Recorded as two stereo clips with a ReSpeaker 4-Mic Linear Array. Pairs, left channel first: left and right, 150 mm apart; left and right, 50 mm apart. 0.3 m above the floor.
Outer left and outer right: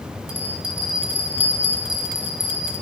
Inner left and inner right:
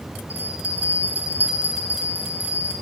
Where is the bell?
35° right (ahead or behind), 1.0 m.